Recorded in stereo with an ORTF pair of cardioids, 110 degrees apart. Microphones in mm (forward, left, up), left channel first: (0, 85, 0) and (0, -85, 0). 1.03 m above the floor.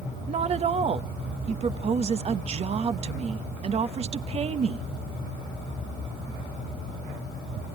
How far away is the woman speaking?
About 0.8 m.